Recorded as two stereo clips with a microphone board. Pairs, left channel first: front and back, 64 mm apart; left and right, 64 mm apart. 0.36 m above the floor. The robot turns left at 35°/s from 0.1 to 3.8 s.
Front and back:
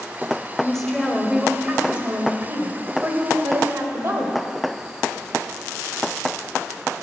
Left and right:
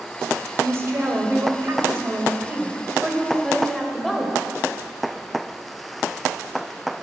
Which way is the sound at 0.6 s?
75° right.